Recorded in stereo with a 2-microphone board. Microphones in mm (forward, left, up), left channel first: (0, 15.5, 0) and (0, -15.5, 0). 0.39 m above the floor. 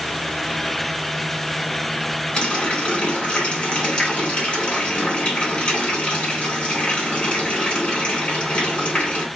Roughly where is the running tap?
Left.